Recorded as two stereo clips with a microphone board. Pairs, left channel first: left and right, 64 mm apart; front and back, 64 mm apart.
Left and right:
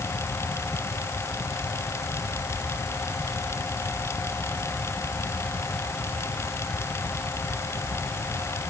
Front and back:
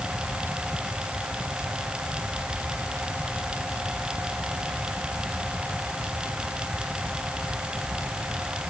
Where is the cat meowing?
No cat meowing in this recording.